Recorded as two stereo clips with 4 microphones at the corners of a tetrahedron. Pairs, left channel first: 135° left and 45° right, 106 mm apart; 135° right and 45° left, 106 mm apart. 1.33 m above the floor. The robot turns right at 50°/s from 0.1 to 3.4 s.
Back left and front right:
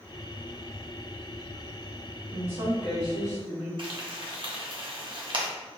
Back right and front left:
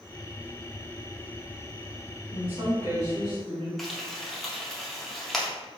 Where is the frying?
50° right, 0.5 m.